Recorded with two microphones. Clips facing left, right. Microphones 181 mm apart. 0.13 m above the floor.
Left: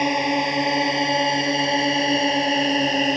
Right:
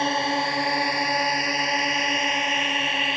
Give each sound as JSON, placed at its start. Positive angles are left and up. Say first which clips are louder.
{"t": 0.0, "sound": "a drone", "louder": "left 4 dB", "side_deg": 15}